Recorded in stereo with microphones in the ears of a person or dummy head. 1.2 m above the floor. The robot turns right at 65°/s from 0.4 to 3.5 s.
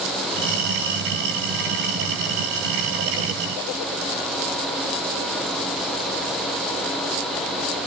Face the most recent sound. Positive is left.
No sound to turn to.